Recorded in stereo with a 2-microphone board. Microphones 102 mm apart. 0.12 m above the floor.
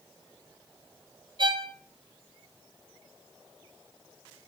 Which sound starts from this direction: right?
A violin, at 1.4 s.